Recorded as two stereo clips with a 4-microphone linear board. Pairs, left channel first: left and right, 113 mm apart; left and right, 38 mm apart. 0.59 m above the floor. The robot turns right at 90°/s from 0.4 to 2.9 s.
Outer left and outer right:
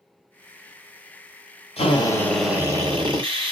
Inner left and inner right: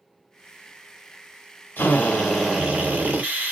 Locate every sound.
1.8 s a drill: 120° left, 1.3 m; by 3.5 s 135° right, 1.3 m